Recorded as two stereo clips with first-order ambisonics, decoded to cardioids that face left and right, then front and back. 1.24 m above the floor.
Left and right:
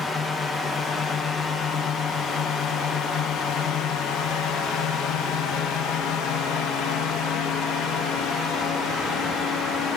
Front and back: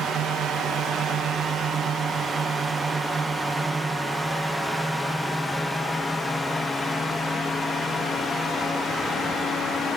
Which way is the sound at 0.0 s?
150° left.